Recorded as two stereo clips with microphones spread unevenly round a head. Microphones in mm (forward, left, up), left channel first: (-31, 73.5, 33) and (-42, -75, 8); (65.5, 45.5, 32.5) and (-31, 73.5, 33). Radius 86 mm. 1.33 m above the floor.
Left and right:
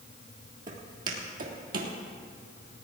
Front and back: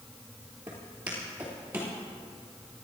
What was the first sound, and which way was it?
Footsteps, 130° right.